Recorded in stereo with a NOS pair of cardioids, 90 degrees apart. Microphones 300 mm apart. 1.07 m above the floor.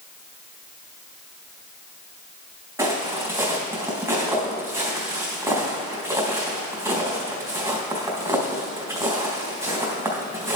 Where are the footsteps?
10° right, 3.5 m.